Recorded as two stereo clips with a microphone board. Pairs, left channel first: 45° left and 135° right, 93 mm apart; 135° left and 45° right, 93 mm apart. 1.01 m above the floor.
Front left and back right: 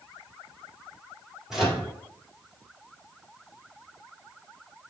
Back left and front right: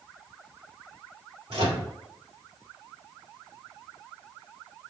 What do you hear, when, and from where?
1.5 s a microwave: 50° right, 2 m